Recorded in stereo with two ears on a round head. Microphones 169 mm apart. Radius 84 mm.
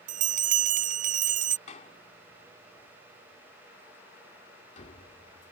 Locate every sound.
0.1 s a bell: 40° right (ahead or behind)
1.7 s a door slam: 35° left (ahead or behind)